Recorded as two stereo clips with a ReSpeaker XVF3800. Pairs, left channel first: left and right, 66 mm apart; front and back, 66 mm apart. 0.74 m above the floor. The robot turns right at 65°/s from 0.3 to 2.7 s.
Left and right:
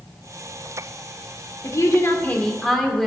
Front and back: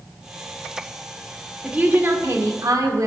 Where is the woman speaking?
105° left, 2 m; by 3.1 s 175° left, 2 m.